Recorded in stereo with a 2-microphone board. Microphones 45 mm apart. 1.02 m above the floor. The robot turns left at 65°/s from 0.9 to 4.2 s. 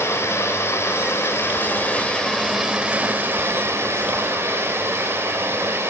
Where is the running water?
105° left, 4 m; by 5.9 s 110° right, 4 m.